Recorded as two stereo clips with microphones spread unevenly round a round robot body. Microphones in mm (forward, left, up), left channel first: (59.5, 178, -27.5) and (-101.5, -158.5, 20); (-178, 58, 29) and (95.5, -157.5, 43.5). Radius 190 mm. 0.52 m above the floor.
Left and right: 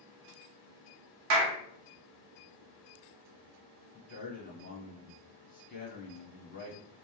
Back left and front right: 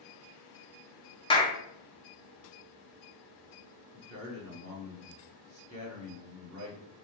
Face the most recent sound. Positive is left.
turn(degrees=10)